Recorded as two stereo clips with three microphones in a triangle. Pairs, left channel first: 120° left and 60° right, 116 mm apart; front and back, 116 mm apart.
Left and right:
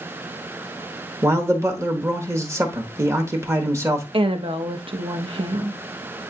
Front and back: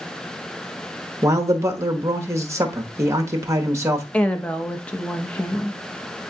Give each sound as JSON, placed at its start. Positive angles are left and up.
{"t": 1.2, "sound": "a man speaking", "azimuth_deg": -120, "distance_m": 1.1}
{"t": 4.1, "sound": "a woman speaking", "azimuth_deg": -75, "distance_m": 0.9}